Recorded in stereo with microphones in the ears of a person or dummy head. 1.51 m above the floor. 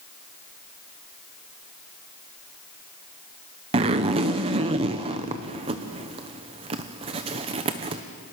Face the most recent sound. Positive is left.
turn(degrees=-25)  # may be behind; listen again after turning